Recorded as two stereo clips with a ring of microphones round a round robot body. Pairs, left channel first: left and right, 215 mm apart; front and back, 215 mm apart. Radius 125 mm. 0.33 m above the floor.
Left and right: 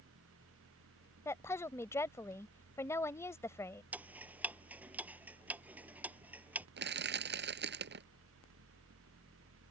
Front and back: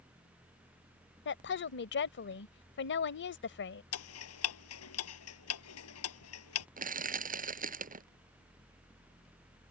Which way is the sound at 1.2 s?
15° left.